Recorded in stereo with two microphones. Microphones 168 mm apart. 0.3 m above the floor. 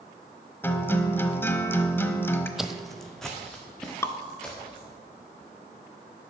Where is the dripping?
15° left (ahead or behind), 0.6 m.